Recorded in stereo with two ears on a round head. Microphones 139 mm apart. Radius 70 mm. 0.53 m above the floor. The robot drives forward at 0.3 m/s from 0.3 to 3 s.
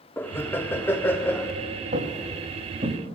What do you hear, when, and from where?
0.2 s laughter: 15° left (ahead or behind), 0.6 m
1.9 s footsteps: 60° right (ahead or behind), 1.8 m; by 3.0 s 35° right (ahead or behind), 2.5 m